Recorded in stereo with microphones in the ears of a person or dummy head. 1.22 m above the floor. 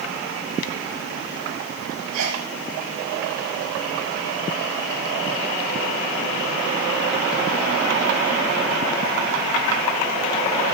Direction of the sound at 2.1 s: 65° right (ahead or behind).